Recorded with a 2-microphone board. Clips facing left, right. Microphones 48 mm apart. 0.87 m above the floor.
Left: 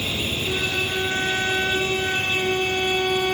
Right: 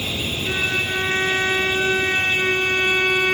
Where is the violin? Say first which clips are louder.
Right 4 dB; 55° right (ahead or behind), 2 m.